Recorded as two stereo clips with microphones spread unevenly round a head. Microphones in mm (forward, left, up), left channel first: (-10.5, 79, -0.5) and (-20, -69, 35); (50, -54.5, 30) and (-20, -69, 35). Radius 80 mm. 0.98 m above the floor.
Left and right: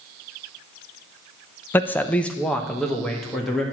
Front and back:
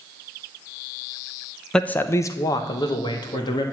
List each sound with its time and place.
1.7 s a man speaking: 75° left, 0.6 m; by 3.6 s straight ahead, 1.9 m